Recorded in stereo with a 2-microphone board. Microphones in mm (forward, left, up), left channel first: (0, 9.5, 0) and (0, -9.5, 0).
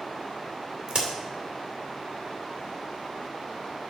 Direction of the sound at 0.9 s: 65° right (ahead or behind).